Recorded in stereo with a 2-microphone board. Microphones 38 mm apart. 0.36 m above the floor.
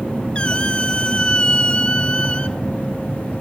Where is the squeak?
30° left (ahead or behind), 0.6 m.